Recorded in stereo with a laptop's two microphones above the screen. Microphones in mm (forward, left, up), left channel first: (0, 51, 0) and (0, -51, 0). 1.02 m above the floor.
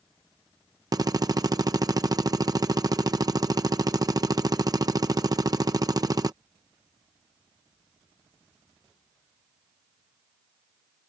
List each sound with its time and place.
0.9 s a drill: 35° right (ahead or behind)